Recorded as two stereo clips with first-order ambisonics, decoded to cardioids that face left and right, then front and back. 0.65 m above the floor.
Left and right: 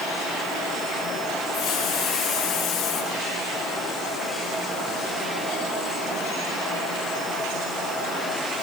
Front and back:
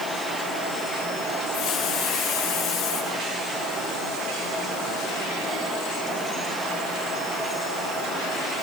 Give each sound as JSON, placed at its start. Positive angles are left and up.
{"t": 1.5, "sound": "a hiss", "azimuth_deg": 40, "distance_m": 5.0}